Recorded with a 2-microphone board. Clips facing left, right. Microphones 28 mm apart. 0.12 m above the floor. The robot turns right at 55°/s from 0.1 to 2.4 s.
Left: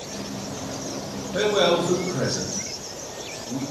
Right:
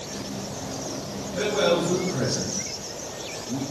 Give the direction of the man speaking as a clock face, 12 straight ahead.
8 o'clock.